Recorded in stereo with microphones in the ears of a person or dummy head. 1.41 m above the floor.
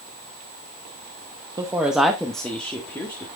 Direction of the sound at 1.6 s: 15° right (ahead or behind).